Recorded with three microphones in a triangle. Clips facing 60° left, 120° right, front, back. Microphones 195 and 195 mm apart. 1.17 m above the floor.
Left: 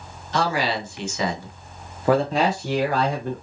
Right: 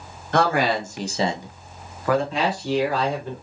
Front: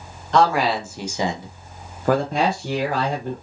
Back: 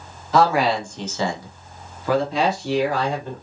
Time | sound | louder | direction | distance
0.3 | a man speaking | right 3 dB, back 1 dB | 95° right | 0.9 m